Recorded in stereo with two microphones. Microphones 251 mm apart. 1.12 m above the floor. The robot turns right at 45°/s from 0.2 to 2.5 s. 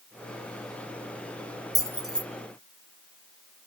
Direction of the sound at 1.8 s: 15° right (ahead or behind).